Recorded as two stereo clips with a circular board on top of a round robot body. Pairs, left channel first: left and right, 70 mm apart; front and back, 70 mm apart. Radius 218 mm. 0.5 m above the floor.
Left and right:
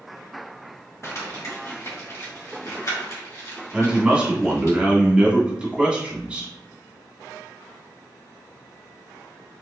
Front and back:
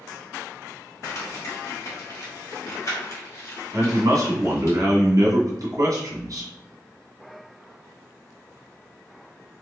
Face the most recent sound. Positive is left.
turn(degrees=-165)